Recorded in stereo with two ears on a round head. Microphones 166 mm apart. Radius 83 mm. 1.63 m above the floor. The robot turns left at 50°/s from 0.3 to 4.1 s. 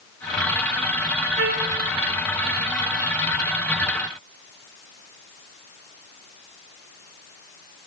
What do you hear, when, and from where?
1.4 s a trumpet: 65° right (ahead or behind), 1.9 m; by 1.8 s 45° right (ahead or behind), 1.9 m